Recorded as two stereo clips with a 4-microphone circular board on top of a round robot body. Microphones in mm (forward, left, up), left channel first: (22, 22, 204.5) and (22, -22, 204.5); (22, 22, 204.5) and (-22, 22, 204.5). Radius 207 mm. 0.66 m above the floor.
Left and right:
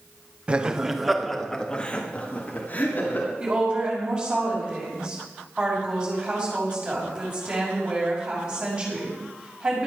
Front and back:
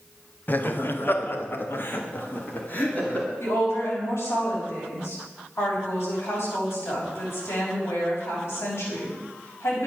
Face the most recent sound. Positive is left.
turn(degrees=-20)